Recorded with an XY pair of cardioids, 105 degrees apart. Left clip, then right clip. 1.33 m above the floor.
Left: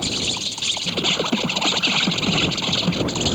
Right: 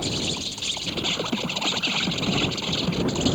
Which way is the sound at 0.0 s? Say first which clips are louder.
Left 4 dB; 30° left.